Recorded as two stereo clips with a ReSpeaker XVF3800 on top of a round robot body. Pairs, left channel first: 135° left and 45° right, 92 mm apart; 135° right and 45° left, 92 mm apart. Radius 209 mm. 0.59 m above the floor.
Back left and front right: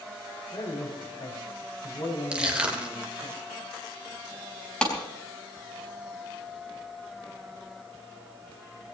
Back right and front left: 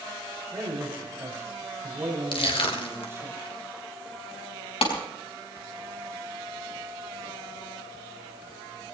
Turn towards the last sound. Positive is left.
turn(degrees=-145)